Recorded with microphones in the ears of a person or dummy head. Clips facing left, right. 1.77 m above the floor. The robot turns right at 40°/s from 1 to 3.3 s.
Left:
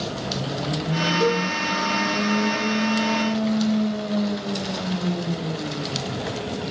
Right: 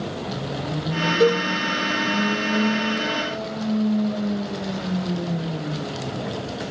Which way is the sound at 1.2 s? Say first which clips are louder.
Right 5 dB; 50° right (ahead or behind).